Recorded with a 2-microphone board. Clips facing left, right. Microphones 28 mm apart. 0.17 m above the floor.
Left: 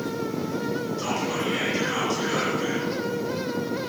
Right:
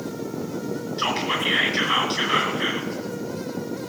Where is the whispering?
50° right (ahead or behind), 2.5 m.